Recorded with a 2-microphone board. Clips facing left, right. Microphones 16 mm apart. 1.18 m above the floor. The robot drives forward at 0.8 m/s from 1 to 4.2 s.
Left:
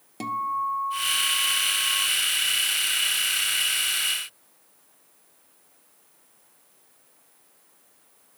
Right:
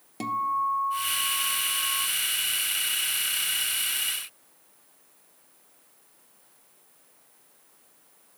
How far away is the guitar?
About 0.7 m.